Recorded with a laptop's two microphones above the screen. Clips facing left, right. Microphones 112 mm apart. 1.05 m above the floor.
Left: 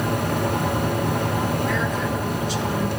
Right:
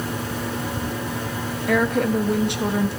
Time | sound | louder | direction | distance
0.0 | a fan | left 5 dB | 60° left (ahead or behind) | 1.1 m
1.7 | a woman speaking | right 4 dB | 65° right (ahead or behind) | 1.1 m